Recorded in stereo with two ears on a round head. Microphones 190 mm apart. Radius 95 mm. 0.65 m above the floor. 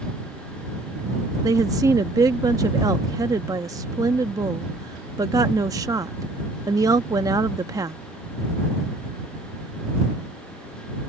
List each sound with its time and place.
1.4 s a woman speaking: 15° right (ahead or behind)